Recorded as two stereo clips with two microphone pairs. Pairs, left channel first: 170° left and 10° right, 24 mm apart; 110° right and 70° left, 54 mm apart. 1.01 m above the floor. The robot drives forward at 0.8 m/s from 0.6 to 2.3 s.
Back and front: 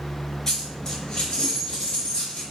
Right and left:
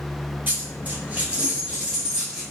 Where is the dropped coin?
105° left, 1.3 m; by 2.4 s 150° left, 2 m.